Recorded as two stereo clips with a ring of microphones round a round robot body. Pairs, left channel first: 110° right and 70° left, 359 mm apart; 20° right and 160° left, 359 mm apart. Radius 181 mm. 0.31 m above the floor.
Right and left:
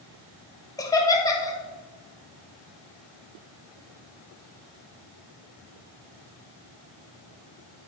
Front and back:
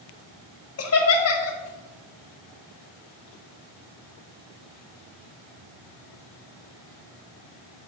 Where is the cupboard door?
I don't hear a cupboard door.